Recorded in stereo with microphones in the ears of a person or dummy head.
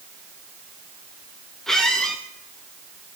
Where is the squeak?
5° left (ahead or behind), 1.4 m.